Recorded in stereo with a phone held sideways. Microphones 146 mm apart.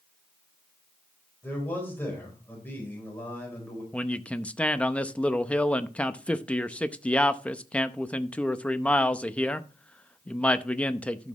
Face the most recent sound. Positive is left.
turn(degrees=10)  # may be behind; listen again after turning